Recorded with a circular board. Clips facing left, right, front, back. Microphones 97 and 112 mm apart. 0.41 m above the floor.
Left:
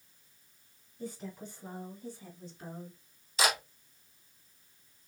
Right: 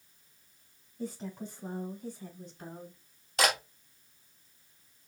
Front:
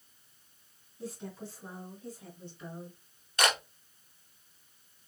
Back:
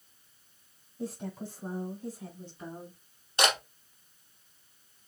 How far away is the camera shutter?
About 2.5 m.